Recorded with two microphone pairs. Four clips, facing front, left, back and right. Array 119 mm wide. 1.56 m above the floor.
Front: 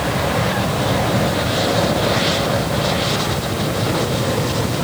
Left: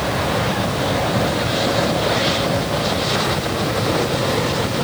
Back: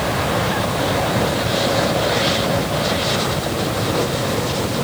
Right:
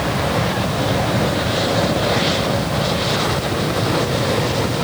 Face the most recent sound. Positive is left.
No sound to turn to.